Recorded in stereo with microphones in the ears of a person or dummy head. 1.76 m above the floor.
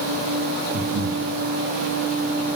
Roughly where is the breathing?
Right.